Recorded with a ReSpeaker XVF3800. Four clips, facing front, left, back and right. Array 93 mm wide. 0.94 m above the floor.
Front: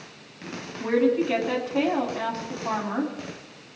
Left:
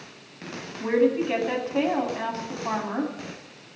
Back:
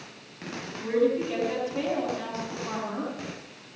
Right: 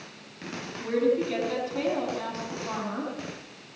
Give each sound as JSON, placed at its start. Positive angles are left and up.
{"t": 0.8, "sound": "a woman speaking", "azimuth_deg": 50, "distance_m": 8.5}